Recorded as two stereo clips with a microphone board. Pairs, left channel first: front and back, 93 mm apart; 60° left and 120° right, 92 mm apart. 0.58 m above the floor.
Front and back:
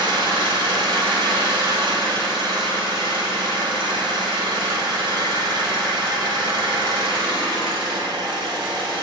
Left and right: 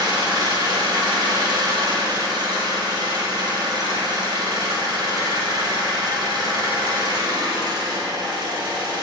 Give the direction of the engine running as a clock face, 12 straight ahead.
5 o'clock.